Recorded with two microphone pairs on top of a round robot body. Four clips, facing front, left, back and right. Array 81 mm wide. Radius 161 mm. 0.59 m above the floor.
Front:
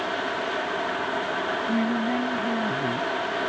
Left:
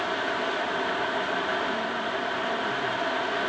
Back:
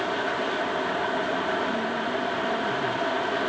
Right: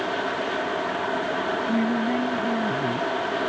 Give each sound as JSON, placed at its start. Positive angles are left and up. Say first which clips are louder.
{"t": 1.7, "sound": "a woman speaking", "louder": "right 5 dB, front 3 dB", "azimuth_deg": -40}